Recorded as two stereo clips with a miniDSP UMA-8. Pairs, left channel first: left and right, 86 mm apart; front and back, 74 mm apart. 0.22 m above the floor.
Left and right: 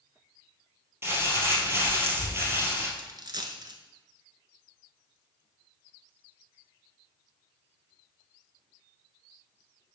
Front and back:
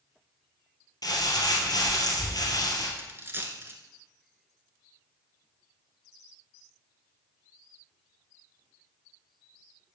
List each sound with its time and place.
1.0 s crumpling: 30° right, 1.9 m
3.0 s a dropped coin: 125° right, 1.0 m